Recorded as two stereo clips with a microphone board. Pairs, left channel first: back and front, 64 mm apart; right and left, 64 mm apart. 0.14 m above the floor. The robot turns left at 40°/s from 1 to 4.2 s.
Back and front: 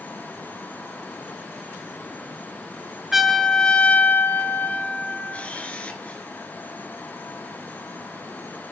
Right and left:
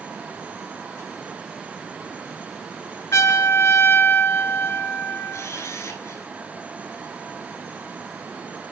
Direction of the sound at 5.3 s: 115° right.